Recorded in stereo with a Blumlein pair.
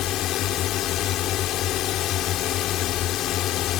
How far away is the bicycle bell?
I don't hear a bicycle bell.